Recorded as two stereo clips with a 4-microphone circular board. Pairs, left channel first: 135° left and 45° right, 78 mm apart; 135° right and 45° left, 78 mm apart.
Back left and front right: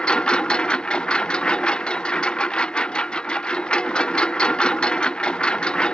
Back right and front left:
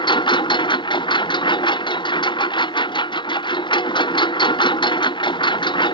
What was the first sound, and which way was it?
A lawn mower, 145° right.